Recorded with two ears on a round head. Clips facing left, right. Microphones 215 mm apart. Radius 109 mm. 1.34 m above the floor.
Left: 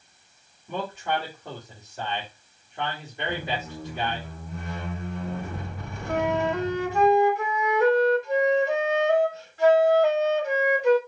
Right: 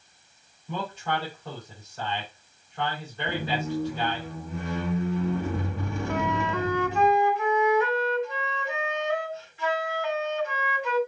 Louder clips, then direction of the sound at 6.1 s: Left 5 dB; 35° left (ahead or behind).